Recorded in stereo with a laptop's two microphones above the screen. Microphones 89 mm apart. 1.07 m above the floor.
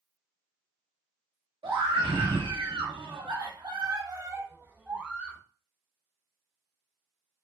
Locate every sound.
1.6 s a scream: 85° right, 1.8 m; by 5.4 s 5° right (ahead or behind), 1.1 m